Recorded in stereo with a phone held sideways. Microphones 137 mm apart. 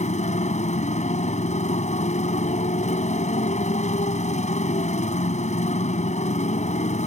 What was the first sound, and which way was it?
A motorcycle, 60° left (ahead or behind).